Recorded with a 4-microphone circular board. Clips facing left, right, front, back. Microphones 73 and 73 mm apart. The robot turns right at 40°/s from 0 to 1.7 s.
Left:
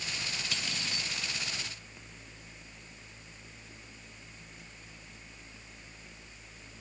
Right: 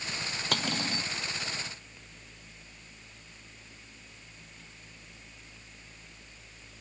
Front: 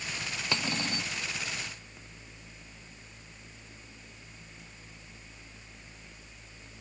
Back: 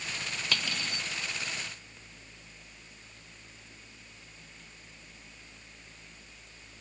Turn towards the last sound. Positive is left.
turn(degrees=-15)